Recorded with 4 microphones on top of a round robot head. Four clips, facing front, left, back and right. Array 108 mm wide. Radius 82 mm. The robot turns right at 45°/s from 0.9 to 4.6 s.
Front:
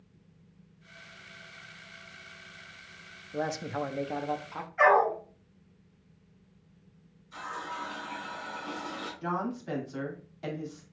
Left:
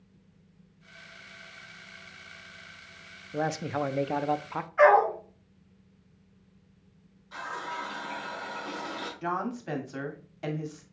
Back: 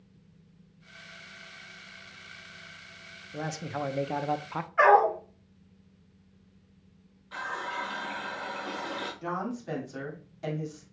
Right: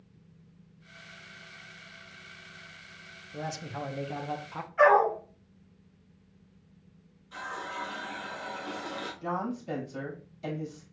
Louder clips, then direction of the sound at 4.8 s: Left 1 dB, back 2 dB; 155° left.